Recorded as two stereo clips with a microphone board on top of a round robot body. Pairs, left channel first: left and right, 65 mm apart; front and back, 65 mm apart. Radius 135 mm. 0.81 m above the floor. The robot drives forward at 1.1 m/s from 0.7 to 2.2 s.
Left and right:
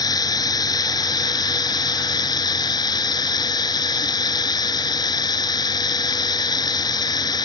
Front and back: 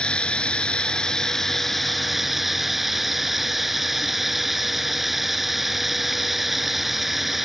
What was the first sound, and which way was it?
Running water, 75° left.